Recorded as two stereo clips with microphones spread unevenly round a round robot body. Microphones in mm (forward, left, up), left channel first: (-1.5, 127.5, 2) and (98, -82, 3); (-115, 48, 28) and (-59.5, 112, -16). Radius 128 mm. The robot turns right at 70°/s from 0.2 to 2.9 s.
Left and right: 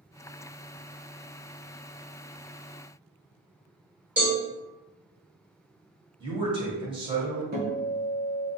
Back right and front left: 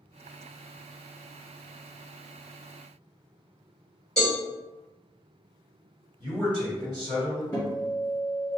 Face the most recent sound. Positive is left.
turn(degrees=-35)